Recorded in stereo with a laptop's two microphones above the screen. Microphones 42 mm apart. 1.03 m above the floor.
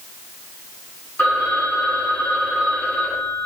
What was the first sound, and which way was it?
A phone ringing, 50° left (ahead or behind).